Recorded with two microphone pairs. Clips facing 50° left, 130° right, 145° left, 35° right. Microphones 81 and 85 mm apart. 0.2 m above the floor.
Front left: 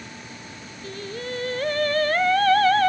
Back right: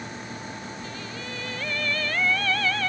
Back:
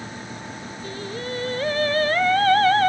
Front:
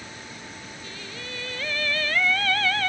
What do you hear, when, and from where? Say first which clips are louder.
0.8 s singing: front left 4 dB, back 11 dB; 95° left